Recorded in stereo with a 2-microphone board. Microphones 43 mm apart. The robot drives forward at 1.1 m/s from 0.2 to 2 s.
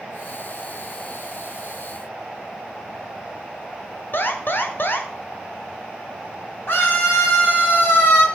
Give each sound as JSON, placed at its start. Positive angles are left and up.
{"t": 4.1, "sound": "an alarm", "side_deg": 55, "distance_m": 1.4}
{"t": 6.7, "sound": "a scream", "side_deg": 65, "distance_m": 5.5}